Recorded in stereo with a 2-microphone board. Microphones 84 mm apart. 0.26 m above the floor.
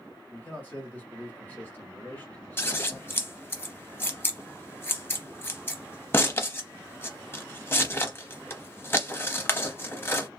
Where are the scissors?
30° left (ahead or behind), 0.6 m.